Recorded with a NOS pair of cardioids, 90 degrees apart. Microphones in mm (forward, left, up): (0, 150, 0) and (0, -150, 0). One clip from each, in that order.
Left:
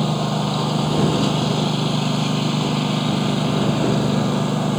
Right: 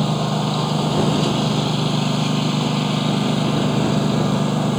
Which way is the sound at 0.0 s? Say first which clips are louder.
Right 1 dB; 5° right.